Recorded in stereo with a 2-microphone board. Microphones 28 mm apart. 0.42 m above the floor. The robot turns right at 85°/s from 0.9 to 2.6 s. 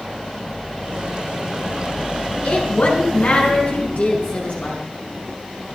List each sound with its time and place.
2.4 s a woman speaking: 75° left (ahead or behind), 6 m; by 4.8 s 65° left (ahead or behind), 6 m